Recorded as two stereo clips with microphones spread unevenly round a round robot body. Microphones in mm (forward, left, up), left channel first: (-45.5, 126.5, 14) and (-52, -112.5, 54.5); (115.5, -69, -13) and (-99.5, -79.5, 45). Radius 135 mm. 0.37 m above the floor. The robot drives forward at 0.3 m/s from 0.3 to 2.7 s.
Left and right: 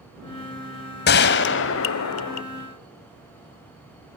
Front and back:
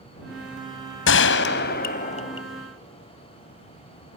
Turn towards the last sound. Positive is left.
turn(degrees=85)